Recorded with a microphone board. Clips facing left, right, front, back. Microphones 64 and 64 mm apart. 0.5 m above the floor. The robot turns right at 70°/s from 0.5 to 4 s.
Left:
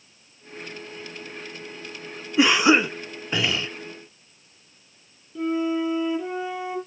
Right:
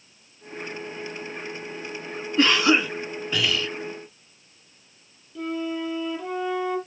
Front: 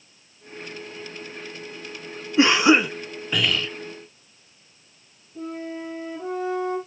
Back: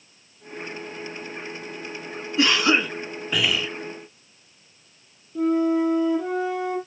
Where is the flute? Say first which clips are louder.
Left 5 dB, back 12 dB; 170° left, 5.5 m.